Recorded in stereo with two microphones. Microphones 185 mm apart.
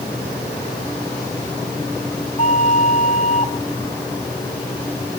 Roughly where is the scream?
No scream in this recording.